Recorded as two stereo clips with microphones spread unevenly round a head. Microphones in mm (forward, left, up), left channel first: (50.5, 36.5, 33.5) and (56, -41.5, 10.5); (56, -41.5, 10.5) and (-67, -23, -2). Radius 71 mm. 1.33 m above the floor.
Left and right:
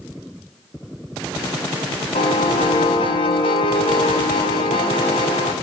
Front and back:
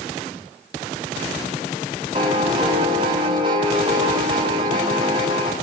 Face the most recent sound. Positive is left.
turn(degrees=110)